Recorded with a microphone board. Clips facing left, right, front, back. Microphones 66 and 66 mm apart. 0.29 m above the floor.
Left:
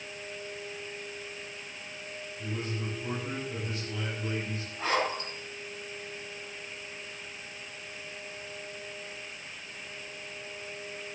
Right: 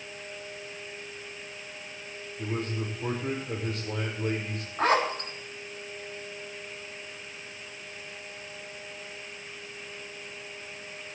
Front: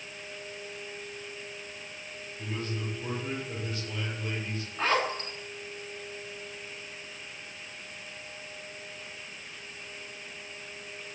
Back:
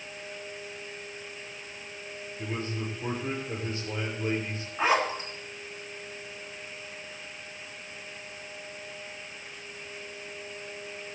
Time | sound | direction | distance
2.4 | a man speaking | 120° right | 6.5 m
4.8 | a zipper | 110° right | 3.5 m